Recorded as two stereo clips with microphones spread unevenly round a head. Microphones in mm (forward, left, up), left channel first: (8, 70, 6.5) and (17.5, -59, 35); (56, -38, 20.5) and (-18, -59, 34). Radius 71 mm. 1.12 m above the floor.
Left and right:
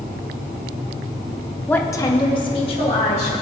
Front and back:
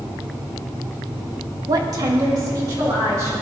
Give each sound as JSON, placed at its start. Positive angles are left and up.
{"t": 1.7, "sound": "a woman speaking", "azimuth_deg": 160, "distance_m": 0.8}